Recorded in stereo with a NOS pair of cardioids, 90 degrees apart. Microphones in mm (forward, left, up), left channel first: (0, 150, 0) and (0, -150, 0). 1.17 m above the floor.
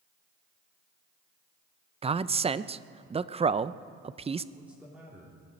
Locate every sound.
2.0 s a man speaking: 20° right, 0.5 m
4.5 s a man speaking: 5° right, 3 m